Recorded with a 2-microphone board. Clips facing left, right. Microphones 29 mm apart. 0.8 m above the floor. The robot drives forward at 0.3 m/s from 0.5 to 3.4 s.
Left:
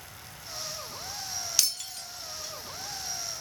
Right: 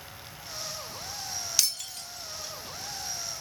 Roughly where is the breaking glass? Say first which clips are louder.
Even; centre.